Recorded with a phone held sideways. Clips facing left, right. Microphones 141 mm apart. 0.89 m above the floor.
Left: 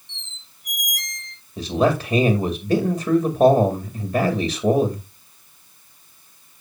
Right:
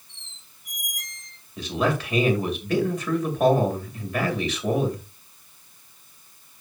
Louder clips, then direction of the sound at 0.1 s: Left 8 dB; 85° left.